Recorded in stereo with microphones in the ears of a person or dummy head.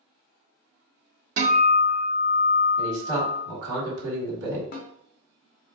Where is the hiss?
I don't hear a hiss.